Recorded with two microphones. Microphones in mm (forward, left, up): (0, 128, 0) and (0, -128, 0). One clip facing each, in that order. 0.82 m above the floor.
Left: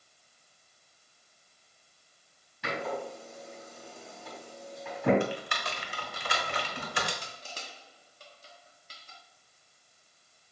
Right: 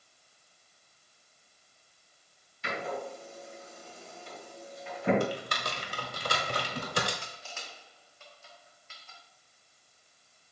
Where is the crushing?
40° left (ahead or behind), 1.6 m.